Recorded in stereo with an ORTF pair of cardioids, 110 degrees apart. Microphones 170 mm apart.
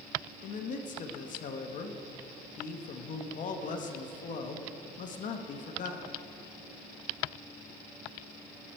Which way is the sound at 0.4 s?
50° left.